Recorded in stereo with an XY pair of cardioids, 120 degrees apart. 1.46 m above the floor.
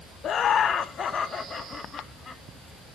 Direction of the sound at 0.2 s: 50° left.